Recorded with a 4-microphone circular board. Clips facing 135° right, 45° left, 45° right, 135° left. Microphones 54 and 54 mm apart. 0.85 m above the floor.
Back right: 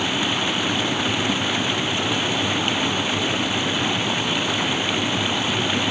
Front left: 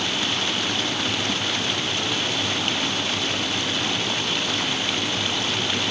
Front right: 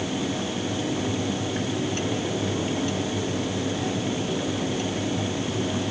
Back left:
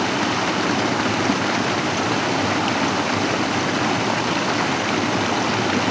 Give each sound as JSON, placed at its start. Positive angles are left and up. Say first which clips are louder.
{"t": 0.0, "sound": "running water", "louder": "back right 3 dB, back left 7 dB", "azimuth_deg": 145}